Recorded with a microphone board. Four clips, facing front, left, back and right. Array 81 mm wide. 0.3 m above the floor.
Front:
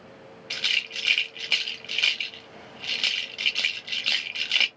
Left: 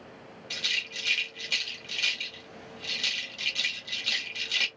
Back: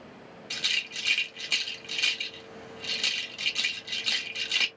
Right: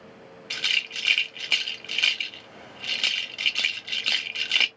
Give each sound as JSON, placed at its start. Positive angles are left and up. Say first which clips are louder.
{"t": 0.5, "sound": "a rattle", "louder": "right 5 dB, front 4 dB", "azimuth_deg": -65, "distance_m": 0.9}